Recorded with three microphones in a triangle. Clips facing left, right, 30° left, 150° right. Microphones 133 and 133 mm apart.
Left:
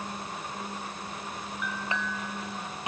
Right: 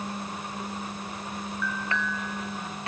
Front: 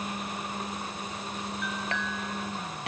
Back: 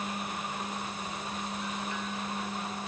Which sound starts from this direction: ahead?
A clink, at 1.6 s.